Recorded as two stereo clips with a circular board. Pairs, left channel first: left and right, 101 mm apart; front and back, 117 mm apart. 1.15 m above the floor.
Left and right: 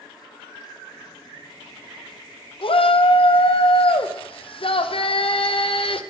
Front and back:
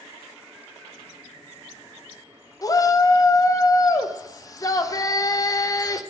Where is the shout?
60° left, 0.6 m.